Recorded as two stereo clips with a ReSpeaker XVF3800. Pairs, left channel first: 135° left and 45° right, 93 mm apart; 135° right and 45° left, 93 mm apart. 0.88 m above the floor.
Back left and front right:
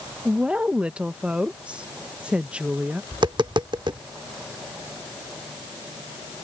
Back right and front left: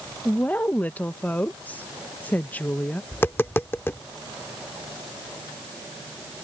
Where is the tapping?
75° right.